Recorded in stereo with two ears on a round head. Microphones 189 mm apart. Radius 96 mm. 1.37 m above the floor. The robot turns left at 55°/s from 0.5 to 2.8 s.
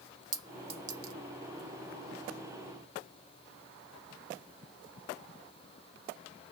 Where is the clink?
20° right (ahead or behind), 0.6 m; by 1.1 s 45° right (ahead or behind), 0.6 m.